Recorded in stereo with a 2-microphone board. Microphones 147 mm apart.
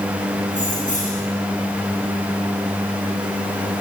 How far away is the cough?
No cough in this recording.